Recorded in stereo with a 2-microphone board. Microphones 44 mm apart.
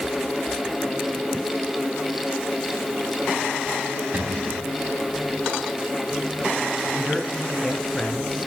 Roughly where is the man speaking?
Centre.